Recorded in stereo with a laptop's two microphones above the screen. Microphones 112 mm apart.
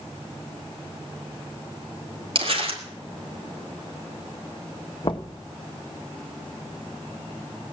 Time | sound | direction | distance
2.4 | crumpling | 50° right (ahead or behind) | 1.7 m
5.0 | knocking | 50° left (ahead or behind) | 1.0 m